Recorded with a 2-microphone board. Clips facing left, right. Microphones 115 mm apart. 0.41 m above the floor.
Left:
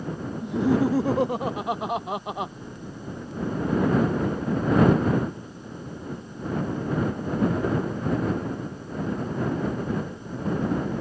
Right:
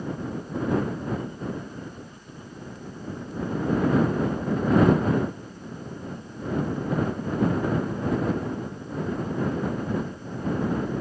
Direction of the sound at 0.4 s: 85° left.